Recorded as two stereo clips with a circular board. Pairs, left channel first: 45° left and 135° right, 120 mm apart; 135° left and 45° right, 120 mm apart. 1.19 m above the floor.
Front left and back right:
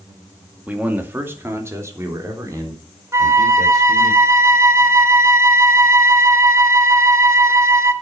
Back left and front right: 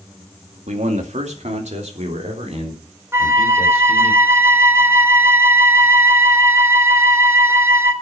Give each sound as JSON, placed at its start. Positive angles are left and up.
{"t": 0.7, "sound": "a man speaking", "azimuth_deg": -55, "distance_m": 2.0}
{"t": 3.1, "sound": "a flute", "azimuth_deg": -95, "distance_m": 1.1}